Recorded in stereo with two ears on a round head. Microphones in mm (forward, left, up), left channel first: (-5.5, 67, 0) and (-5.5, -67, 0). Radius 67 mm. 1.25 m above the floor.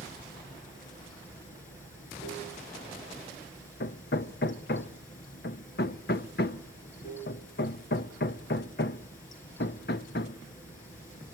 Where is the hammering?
70° left (ahead or behind), 0.8 m.